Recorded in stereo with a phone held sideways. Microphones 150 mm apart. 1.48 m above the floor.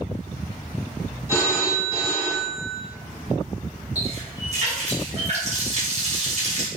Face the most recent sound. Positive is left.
turn(degrees=-50)  # may be behind; listen again after turning